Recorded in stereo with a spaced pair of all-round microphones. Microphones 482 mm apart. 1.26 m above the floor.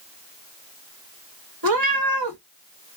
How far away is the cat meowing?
About 0.8 m.